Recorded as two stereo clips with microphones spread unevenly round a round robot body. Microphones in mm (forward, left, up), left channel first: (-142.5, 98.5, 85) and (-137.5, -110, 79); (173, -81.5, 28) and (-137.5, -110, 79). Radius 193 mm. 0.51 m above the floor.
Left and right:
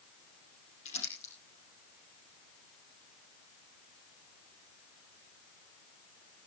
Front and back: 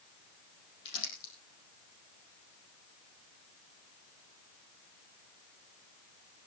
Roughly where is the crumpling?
Ahead left.